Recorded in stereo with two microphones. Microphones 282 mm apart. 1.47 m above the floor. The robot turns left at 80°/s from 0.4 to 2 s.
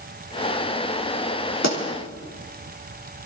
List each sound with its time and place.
1.6 s a pop: 75° left (ahead or behind), 3.5 m; by 1.8 s 85° left, 3.5 m